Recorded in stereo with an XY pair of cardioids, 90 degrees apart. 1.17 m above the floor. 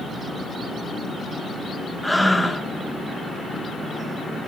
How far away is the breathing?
About 0.9 m.